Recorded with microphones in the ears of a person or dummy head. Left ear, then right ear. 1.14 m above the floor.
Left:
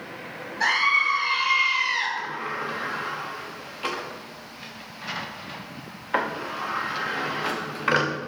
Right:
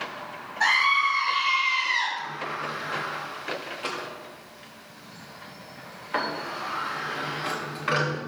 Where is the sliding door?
15° left (ahead or behind), 0.9 m.